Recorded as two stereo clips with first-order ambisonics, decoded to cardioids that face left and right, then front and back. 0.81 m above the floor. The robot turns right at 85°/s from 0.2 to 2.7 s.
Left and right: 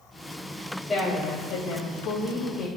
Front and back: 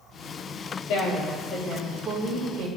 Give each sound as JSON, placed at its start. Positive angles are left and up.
{"t": 0.9, "sound": "a woman speaking", "azimuth_deg": 10, "distance_m": 4.0}